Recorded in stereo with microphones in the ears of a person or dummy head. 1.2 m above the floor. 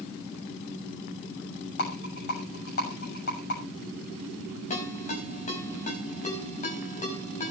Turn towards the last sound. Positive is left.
turn(degrees=40)  # may be behind; listen again after turning